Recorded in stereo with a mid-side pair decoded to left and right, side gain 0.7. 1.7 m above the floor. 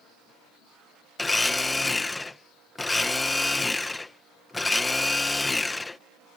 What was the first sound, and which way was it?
A blender, 10° left.